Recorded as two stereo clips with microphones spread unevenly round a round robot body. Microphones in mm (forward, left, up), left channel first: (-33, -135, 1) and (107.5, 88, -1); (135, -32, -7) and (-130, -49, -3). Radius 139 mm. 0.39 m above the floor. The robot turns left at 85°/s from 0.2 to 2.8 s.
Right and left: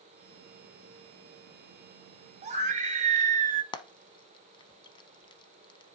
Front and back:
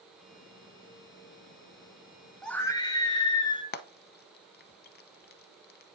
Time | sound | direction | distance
2.4 | a scream | 90° left | 1.1 m
3.7 | frying | 50° right | 0.8 m